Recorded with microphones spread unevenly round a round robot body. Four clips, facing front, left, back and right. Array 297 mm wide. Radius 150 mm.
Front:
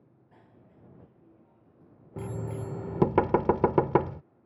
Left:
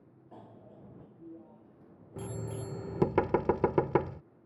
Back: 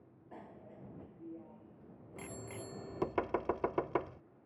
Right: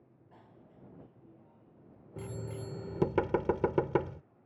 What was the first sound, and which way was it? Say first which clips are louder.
A bicycle bell: left 7 dB, back 7 dB; 135° left.